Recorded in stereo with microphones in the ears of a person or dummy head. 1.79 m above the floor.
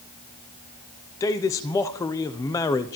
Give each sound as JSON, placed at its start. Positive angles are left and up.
{"t": 1.2, "sound": "a man speaking", "side_deg": 15, "distance_m": 0.7}